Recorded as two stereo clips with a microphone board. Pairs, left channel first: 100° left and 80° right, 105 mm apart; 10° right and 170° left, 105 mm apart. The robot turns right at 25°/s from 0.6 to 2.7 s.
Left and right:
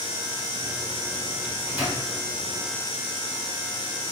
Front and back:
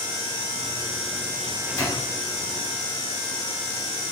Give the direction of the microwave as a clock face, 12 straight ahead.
1 o'clock.